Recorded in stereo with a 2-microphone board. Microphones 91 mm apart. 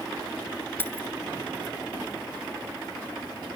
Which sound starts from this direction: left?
Keys jangling, at 0.8 s.